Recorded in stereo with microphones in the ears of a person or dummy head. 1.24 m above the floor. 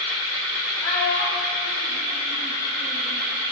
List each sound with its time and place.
0.8 s a child speaking: 20° left (ahead or behind), 0.7 m; by 3.2 s 40° left (ahead or behind), 3.5 m